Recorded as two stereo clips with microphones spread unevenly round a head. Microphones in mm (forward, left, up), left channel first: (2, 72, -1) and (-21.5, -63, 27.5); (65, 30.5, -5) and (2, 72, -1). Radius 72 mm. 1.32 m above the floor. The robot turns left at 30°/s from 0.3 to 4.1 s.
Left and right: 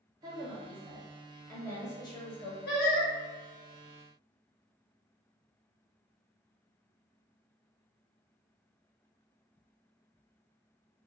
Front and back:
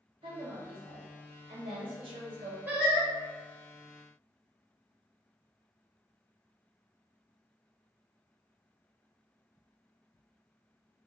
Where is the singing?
75° left, 0.8 m; by 3.1 s 65° left, 0.8 m.